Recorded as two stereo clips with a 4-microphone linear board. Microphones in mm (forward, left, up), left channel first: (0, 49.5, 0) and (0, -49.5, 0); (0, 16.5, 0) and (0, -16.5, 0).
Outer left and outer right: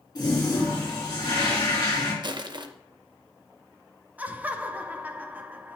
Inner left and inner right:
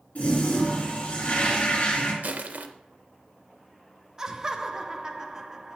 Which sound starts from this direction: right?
Crushing, at 2.2 s.